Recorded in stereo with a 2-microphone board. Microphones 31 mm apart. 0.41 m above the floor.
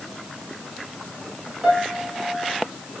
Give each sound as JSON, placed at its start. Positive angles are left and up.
{"t": 1.6, "sound": "a piano", "side_deg": -35, "distance_m": 5.5}